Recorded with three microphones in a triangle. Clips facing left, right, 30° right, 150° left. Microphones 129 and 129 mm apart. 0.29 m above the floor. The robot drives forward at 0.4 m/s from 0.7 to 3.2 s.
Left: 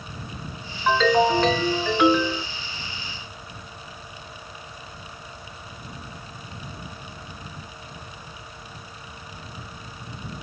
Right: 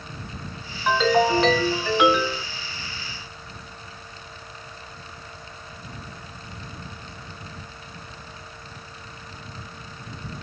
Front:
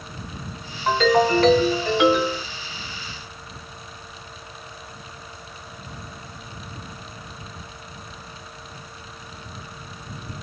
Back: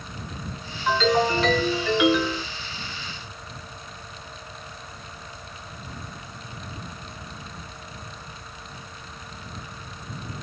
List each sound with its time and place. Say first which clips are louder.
0.9 s a ringtone: left 1 dB, front 3 dB; 10° right, 1.5 m; by 2.4 s 15° right, 1.0 m